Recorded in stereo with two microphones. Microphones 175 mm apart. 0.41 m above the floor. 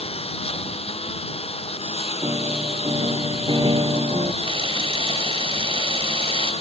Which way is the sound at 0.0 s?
35° left (ahead or behind).